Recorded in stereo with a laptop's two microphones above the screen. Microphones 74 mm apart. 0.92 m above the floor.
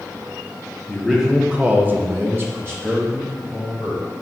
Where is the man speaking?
Centre (ahead or behind), 0.7 m; by 4.0 s 30° right (ahead or behind), 1.4 m.